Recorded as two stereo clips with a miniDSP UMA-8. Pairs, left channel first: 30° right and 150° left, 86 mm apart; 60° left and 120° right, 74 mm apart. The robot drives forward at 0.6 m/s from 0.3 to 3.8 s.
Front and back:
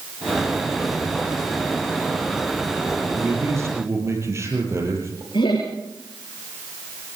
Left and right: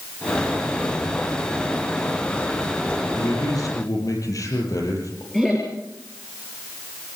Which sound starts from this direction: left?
A man speaking, at 3.2 s.